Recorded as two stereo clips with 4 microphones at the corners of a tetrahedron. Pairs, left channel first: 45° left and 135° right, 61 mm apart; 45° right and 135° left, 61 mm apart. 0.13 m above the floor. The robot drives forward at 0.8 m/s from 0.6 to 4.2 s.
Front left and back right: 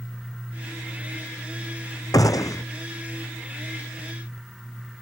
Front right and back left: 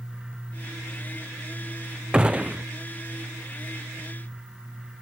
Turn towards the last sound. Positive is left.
turn(degrees=100)